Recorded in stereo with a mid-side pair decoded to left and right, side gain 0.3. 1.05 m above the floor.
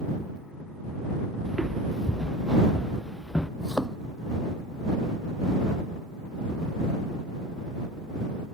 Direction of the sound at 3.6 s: 5° left.